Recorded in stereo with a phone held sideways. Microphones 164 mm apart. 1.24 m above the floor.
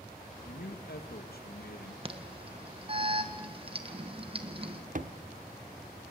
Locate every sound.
0.5 s a man speaking: 70° left (ahead or behind), 1.7 m
2.0 s an alarm: 35° right (ahead or behind), 1.7 m
5.0 s a thud: 55° right (ahead or behind), 1.2 m